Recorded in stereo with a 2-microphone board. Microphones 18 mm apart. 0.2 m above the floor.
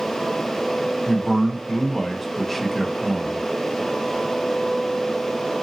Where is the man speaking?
10° left (ahead or behind), 1.0 m.